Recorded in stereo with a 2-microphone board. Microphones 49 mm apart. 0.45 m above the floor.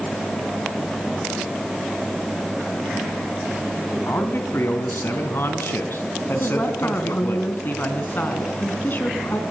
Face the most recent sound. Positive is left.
turn(degrees=40)  # may be behind; listen again after turning